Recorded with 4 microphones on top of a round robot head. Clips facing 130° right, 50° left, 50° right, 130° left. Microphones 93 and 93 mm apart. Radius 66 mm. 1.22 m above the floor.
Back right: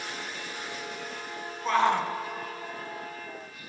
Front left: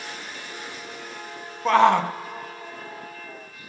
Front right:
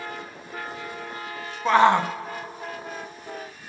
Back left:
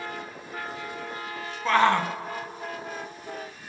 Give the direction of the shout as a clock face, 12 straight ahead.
11 o'clock.